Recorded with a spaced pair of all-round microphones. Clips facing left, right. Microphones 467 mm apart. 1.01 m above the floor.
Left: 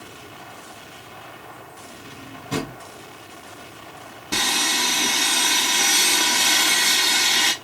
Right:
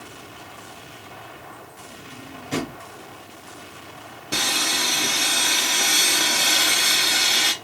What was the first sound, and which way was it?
A drawer, 60° left (ahead or behind).